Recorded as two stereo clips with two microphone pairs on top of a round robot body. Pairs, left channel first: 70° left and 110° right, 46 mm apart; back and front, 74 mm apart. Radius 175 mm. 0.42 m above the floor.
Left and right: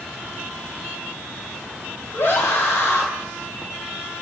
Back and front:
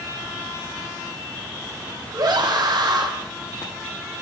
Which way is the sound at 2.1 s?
35° left.